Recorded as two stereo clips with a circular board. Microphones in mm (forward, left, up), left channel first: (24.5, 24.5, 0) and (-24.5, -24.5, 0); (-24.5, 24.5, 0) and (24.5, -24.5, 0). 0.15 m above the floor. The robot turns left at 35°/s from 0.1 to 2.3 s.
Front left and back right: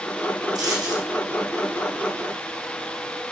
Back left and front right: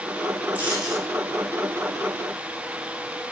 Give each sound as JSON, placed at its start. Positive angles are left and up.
{"t": 0.6, "sound": "a dropped coin", "azimuth_deg": -110, "distance_m": 2.0}